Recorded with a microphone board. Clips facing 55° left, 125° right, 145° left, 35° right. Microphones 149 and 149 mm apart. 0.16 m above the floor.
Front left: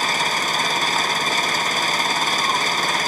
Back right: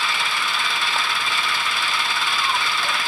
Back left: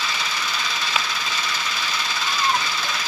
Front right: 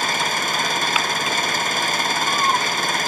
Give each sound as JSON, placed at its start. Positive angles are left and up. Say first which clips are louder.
{"t": 0.0, "sound": "an engine running", "louder": "front left 3 dB, front right 5 dB", "azimuth_deg": 10}